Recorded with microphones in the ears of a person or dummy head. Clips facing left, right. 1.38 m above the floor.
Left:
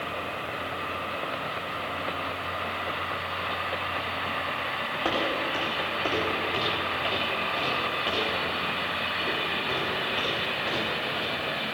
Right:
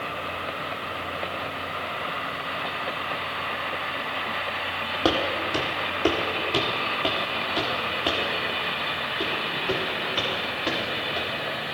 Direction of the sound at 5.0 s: 50° right (ahead or behind).